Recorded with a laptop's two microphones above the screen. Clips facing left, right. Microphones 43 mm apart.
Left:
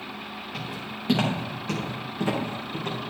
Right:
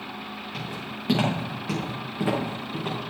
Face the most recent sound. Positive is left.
turn(degrees=-10)  # may be behind; listen again after turning